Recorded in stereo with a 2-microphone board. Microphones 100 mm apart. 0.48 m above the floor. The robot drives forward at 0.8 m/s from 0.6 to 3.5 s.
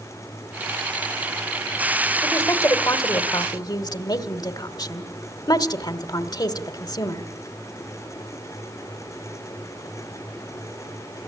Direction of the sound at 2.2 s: 30° left (ahead or behind).